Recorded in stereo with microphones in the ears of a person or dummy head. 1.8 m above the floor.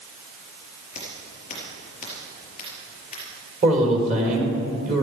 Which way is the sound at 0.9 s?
35° left (ahead or behind).